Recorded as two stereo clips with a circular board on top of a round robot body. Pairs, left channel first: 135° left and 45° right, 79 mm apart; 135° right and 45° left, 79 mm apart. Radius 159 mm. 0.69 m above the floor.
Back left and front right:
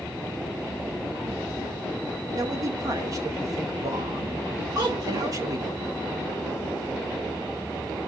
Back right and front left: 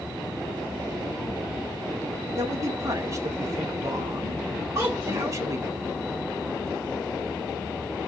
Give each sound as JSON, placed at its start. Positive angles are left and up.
{"t": 2.4, "sound": "a man speaking", "azimuth_deg": 0, "distance_m": 1.9}
{"t": 4.8, "sound": "a child speaking", "azimuth_deg": -5, "distance_m": 1.9}